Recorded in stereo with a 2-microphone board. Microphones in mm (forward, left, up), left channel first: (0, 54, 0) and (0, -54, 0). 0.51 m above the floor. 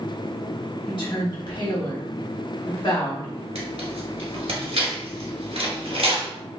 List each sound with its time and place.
0.9 s a woman speaking: 50° left (ahead or behind), 1.7 m
3.5 s tearing paper: 75° right (ahead or behind), 1.6 m